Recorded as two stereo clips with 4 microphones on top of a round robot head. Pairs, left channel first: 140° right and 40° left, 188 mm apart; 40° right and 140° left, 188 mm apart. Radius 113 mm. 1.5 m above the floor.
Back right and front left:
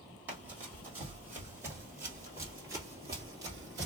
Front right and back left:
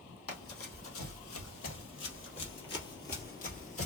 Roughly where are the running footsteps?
Ahead right.